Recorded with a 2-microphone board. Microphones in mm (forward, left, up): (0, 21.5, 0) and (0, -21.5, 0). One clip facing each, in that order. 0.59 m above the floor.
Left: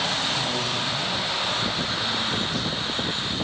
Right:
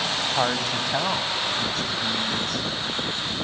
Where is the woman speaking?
60° right (ahead or behind), 2.5 m; by 3.4 s 75° right (ahead or behind), 7 m.